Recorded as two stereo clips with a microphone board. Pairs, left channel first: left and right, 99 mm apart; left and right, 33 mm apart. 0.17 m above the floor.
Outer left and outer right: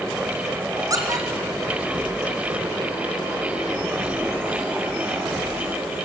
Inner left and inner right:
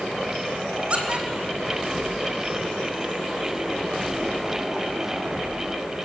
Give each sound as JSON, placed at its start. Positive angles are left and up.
{"t": 0.9, "sound": "a squeak", "side_deg": -35, "distance_m": 2.5}